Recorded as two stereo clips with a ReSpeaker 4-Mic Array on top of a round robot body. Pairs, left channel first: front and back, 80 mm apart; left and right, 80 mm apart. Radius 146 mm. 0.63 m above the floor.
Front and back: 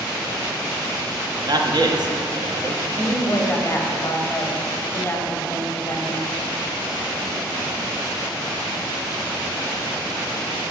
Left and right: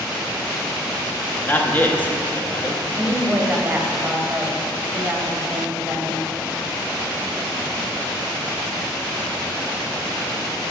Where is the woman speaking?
45° right, 1.1 m.